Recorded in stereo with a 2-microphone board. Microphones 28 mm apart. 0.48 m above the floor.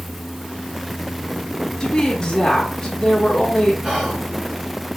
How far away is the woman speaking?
About 0.9 m.